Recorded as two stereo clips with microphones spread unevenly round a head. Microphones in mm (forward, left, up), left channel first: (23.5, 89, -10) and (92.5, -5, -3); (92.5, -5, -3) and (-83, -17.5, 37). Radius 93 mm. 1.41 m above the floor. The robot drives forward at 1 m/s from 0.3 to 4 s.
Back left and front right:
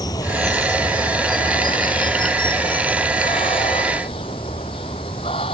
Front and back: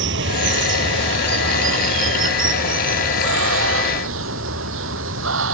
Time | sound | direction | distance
0.0 | running water | 160° right | ?